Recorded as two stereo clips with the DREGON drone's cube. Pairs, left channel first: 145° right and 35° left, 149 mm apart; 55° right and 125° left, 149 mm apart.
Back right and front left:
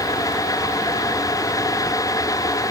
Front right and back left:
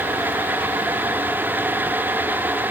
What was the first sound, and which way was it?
Only background noise.